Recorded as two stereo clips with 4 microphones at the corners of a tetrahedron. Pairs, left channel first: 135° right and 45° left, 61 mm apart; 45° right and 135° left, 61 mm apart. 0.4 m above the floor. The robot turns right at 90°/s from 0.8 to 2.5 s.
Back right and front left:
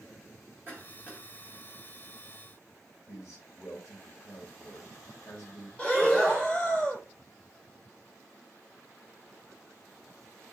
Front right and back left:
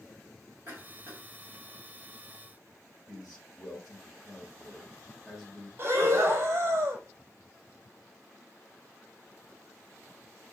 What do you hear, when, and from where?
0.7 s a cough: 90° left, 2.5 m; by 1.2 s 130° left, 2.5 m
3.1 s a man speaking: 140° right, 1.8 m
5.8 s breathing: 155° left, 1.3 m